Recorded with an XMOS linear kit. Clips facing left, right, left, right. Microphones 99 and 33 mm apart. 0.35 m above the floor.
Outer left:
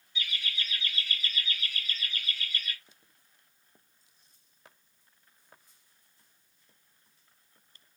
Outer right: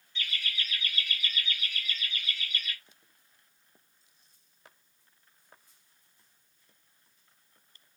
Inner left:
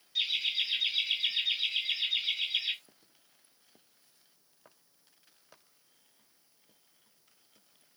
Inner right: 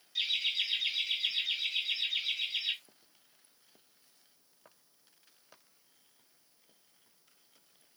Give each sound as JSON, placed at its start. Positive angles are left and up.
{"t": 0.1, "sound": "laughter", "side_deg": 10, "distance_m": 1.0}